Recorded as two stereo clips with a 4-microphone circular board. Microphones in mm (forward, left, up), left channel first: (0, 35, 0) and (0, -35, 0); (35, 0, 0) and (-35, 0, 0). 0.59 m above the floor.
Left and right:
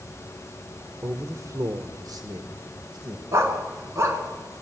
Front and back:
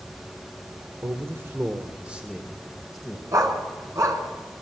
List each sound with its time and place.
1.0 s a man speaking: 140° right, 1.6 m; by 3.2 s 85° right, 2.5 m
3.3 s a dog barking: 140° right, 3 m